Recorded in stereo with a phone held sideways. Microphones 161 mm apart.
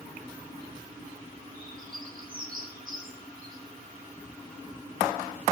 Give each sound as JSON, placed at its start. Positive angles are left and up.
{"t": 1.5, "sound": "a bird", "side_deg": -65, "distance_m": 5.5}